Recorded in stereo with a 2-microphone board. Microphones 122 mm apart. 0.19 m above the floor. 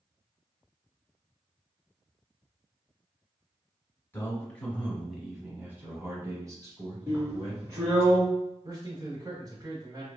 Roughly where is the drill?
Right.